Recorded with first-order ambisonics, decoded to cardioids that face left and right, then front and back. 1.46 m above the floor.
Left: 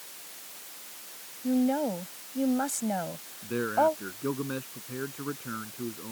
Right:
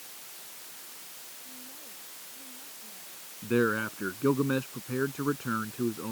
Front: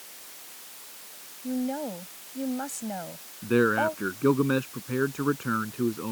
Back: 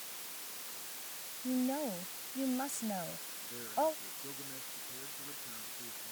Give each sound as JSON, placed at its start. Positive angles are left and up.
{"t": 1.4, "sound": "a woman speaking", "azimuth_deg": 75}
{"t": 3.4, "sound": "a man speaking", "azimuth_deg": -20}